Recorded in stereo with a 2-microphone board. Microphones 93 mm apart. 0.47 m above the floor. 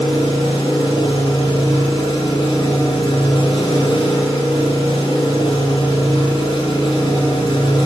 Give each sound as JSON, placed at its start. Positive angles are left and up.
{"t": 0.0, "sound": "an engine running", "side_deg": 65, "distance_m": 1.9}